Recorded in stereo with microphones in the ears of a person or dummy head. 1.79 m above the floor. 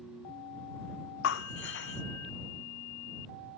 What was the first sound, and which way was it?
Breaking glass, 75° left (ahead or behind).